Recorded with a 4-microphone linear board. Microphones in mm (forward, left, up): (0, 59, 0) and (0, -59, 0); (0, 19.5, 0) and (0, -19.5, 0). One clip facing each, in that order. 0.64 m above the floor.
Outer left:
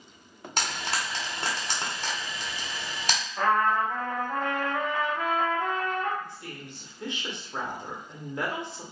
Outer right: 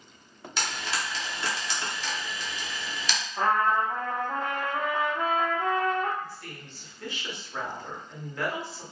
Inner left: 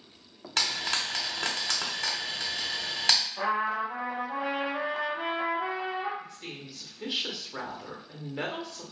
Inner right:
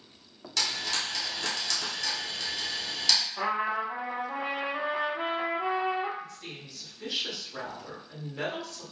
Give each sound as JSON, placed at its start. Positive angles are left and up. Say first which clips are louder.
{"t": 0.6, "sound": "frying", "louder": "outer left 1 dB, inner left 2 dB", "side_deg": 45, "distance_m": 0.9}
{"t": 3.4, "sound": "a trumpet", "louder": "even, inner left 1 dB", "side_deg": -20, "distance_m": 0.8}
{"t": 6.2, "sound": "a woman speaking", "louder": "even, even", "side_deg": 20, "distance_m": 0.9}